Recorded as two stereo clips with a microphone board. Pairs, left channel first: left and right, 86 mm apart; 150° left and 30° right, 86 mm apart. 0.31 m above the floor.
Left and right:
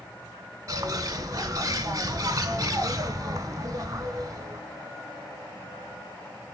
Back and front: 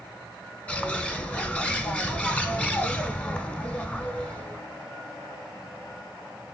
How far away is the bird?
About 0.9 m.